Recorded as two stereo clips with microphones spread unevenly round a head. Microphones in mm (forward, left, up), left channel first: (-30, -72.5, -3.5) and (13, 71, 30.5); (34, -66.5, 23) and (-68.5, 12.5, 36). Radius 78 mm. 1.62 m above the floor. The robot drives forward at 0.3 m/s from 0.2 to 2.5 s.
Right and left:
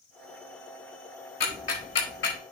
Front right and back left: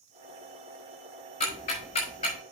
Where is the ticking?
75° right, 4.5 m; by 2.4 s 80° right, 4.5 m.